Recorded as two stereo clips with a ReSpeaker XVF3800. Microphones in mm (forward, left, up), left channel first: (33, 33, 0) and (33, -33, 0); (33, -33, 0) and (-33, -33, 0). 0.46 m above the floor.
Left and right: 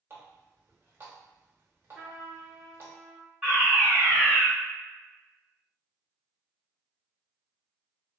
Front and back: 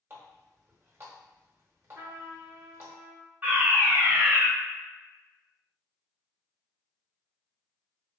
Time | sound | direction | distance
0.1 | a running tap | 130° right | 0.8 m
1.9 | a trumpet | 145° right | 0.9 m
3.4 | a fire alarm | 145° right | 1.7 m